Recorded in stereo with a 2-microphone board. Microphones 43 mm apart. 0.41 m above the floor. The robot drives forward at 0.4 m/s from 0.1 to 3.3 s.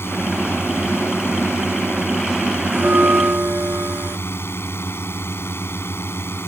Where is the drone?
70° left (ahead or behind).